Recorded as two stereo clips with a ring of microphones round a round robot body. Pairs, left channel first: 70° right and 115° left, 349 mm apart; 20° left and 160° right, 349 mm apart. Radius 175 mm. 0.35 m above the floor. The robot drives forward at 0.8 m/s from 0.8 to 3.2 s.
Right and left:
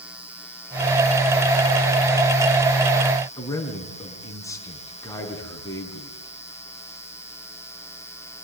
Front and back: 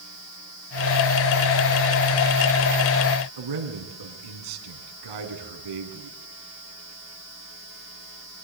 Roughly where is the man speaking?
Behind right.